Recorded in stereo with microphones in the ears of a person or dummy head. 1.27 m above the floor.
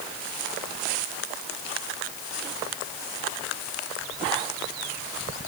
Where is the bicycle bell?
No bicycle bell in this recording.